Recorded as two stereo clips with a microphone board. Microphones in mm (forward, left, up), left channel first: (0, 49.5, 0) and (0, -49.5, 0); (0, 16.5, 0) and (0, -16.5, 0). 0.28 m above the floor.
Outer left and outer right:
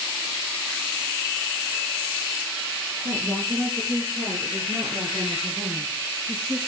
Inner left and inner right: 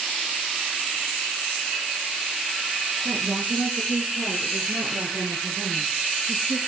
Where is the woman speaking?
45° right (ahead or behind), 5 m; by 6.6 s 20° right (ahead or behind), 6.5 m.